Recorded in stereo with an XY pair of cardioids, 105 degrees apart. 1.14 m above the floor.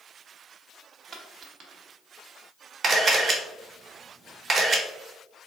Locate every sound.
1.1 s a dropped coin: 70° right, 1.2 m
2.8 s a camera shutter: 50° right, 1.1 m